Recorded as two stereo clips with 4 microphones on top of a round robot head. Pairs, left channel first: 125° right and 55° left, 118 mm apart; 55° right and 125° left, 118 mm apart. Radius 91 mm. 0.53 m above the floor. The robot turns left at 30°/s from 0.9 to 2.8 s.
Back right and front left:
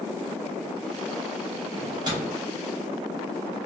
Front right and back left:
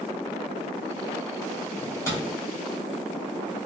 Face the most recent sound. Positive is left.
turn(degrees=-15)